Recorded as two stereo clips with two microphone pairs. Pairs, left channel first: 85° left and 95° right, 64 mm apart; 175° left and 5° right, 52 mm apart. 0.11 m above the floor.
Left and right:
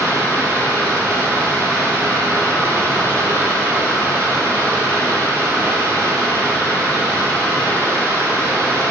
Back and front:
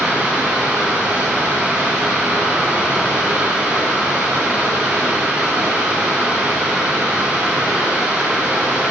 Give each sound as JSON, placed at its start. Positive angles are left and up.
{"t": 0.0, "sound": "running water", "azimuth_deg": -65, "distance_m": 1.5}